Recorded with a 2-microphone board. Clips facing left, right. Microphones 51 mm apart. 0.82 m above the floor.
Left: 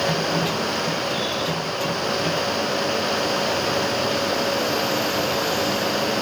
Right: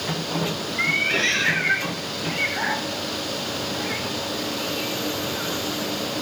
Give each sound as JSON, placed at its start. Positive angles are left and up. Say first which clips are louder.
{"t": 0.8, "sound": "a cat meowing", "louder": "right 2 dB", "side_deg": -80}